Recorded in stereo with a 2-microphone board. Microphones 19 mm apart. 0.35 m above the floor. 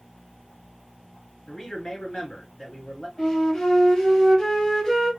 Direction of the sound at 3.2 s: 40° left (ahead or behind).